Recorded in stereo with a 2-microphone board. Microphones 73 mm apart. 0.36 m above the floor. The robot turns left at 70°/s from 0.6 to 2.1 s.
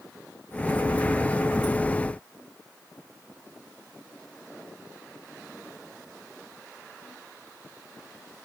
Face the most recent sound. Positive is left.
No sound to turn to.